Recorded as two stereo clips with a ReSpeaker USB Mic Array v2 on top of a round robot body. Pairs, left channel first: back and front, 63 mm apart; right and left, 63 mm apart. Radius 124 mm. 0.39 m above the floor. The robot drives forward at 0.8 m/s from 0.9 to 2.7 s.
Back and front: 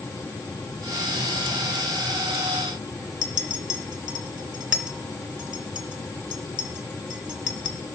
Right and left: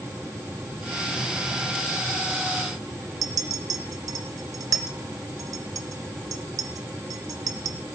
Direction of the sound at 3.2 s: 80° left.